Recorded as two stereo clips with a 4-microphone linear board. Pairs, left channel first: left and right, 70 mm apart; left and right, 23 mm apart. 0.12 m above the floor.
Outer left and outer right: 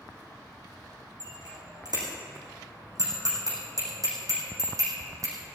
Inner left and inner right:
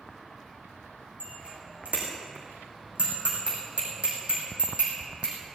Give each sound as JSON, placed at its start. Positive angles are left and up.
{"t": 1.2, "sound": "a bicycle bell", "side_deg": -70, "distance_m": 5.5}